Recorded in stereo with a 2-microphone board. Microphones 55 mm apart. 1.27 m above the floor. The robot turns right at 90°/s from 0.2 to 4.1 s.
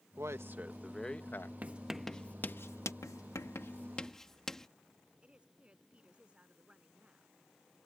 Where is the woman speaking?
20° right (ahead or behind).